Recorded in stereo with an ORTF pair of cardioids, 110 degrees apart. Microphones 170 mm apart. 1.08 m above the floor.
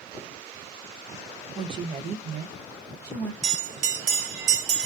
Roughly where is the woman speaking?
Ahead.